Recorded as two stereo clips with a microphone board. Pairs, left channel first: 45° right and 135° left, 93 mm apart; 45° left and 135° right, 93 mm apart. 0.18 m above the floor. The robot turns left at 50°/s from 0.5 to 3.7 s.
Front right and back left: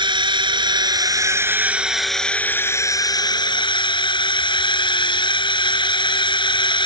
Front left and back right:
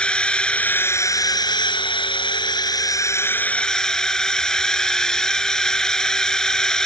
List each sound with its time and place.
0.0 s a drone: 125° left; by 6.9 s 35° right